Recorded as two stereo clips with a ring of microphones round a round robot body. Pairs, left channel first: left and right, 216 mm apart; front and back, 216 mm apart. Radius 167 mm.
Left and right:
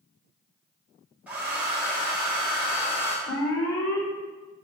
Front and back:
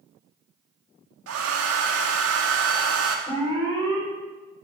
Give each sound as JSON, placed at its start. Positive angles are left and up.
{"t": 1.3, "sound": "a hair dryer", "azimuth_deg": -175, "distance_m": 1.4}
{"t": 3.3, "sound": "an alarm", "azimuth_deg": 75, "distance_m": 5.0}